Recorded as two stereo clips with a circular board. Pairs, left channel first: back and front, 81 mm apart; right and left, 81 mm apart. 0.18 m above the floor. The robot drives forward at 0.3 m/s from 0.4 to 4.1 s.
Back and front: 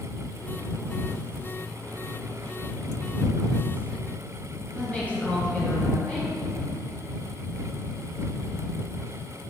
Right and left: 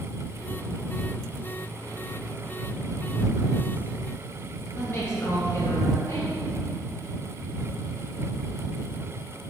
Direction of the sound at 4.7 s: 120° right.